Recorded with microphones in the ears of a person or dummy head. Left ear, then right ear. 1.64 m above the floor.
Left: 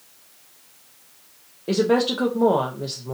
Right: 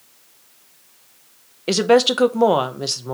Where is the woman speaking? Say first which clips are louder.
Right 5 dB; 65° right (ahead or behind), 0.6 m.